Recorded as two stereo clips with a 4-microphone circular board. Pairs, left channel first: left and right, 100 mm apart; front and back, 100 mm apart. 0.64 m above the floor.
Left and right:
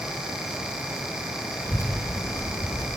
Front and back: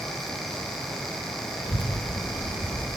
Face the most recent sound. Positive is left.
turn(degrees=30)